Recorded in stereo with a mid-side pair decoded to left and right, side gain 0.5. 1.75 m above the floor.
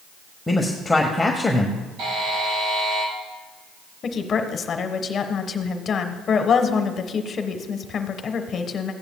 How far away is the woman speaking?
About 1.4 m.